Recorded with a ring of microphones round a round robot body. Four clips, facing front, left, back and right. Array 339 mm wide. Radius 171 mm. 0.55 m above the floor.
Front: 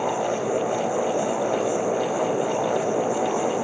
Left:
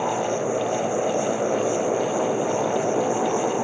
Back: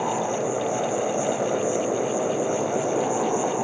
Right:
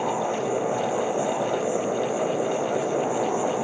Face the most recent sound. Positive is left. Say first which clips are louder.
# left 2 dB, front 1 dB
turn(degrees=125)